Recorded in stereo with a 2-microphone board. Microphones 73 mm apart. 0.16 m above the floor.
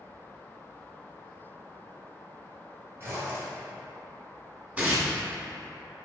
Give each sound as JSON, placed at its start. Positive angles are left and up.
{"t": 3.0, "sound": "a zipper", "side_deg": -35, "distance_m": 1.4}
{"t": 4.8, "sound": "tearing paper", "side_deg": -20, "distance_m": 1.3}